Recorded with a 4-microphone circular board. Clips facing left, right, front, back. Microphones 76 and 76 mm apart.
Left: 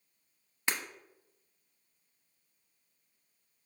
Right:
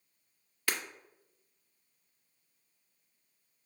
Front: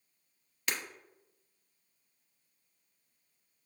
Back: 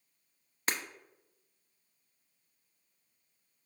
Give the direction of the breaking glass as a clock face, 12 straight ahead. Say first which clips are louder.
Even, back 2 dB; 7 o'clock.